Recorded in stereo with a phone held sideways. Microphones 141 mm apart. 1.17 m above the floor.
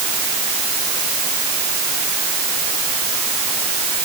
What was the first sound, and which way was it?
Only background noise.